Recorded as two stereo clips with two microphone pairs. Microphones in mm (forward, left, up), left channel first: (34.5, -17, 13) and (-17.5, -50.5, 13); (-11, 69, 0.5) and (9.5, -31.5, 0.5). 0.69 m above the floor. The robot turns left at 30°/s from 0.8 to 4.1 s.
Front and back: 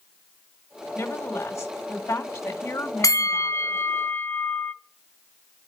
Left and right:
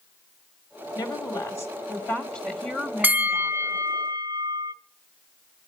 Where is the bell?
5° right, 0.6 m; by 4.7 s 35° right, 0.6 m.